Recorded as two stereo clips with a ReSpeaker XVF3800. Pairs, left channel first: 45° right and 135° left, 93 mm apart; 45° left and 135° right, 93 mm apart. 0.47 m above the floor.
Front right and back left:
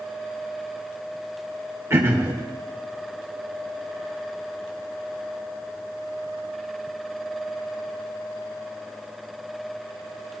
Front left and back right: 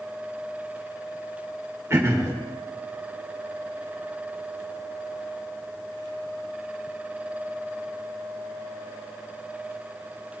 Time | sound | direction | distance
1.9 | throat clearing | straight behind | 1.5 m